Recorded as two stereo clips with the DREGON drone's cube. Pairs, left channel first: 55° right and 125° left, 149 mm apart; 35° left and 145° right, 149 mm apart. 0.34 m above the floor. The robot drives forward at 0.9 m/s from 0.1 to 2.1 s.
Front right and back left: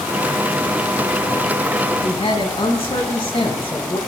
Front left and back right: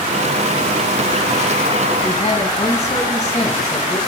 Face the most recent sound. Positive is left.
turn(degrees=-5)